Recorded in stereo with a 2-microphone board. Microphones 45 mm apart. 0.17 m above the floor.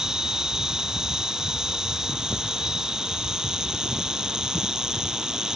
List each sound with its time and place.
0.0 s an insect: 15° right (ahead or behind)